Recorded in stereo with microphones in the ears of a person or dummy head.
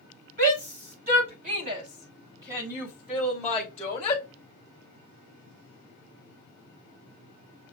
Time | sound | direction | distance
0.4 | a shout | 55° right (ahead or behind) | 2 m